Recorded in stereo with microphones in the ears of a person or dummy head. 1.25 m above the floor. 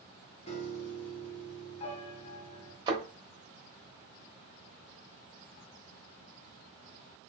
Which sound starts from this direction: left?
A piano, at 0.5 s.